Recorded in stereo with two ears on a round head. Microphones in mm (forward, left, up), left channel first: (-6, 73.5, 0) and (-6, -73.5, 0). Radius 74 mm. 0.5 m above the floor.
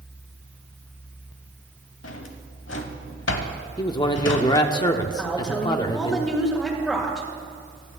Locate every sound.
2.0 s a drawer: 80° left, 1.2 m
3.8 s a man speaking: 25° left (ahead or behind), 0.9 m
5.2 s a woman speaking: 5° left (ahead or behind), 2.0 m